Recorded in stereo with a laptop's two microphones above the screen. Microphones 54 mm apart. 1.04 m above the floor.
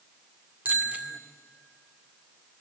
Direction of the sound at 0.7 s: 30° right (ahead or behind).